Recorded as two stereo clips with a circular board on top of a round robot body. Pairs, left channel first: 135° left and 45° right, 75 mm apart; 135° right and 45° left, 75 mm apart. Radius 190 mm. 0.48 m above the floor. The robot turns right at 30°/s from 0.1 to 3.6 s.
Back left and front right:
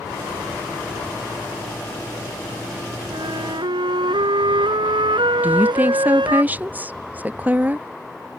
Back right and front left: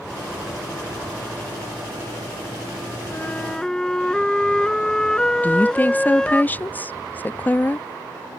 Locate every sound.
3.1 s a flute: 70° right; by 6.4 s 55° right
5.4 s a woman speaking: 90° right